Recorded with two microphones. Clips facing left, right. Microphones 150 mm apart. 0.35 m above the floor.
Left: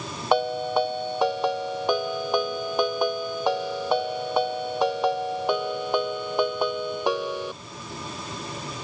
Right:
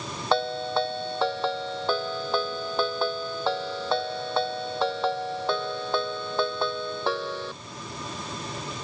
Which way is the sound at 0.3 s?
15° left (ahead or behind).